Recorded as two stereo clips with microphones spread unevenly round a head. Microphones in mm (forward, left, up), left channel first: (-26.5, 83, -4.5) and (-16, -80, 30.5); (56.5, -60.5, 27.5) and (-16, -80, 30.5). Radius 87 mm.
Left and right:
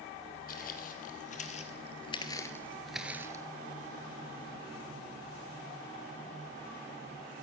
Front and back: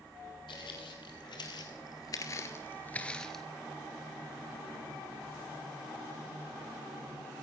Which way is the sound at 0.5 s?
50° left.